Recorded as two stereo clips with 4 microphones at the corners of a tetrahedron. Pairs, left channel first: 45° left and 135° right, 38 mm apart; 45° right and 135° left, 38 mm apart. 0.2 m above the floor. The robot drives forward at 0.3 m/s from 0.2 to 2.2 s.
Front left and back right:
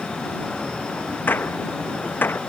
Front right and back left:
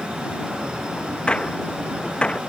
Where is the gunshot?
15° left; by 2.4 s 20° left.